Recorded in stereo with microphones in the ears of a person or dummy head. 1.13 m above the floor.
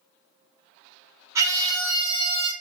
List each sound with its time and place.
1.4 s a scream: 15° right (ahead or behind), 5 m; by 2.5 s 25° right (ahead or behind), 4.5 m